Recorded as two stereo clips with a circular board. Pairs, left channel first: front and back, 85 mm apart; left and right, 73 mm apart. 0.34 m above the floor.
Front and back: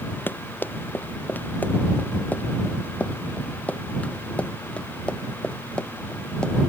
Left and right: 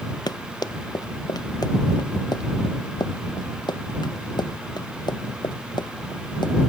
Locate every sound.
0.3 s running footsteps: 65° left; by 6.5 s 80° left